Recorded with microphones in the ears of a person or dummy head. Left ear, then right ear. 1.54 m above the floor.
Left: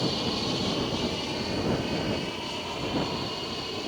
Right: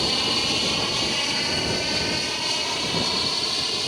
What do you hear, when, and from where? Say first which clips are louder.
0.0 s an aircraft: right 7 dB; 50° right (ahead or behind); by 3.9 s 70° right (ahead or behind)